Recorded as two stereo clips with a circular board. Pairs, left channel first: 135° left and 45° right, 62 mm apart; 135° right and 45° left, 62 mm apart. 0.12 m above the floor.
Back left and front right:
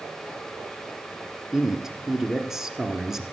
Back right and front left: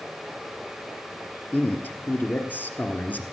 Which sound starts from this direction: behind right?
A man speaking, at 1.5 s.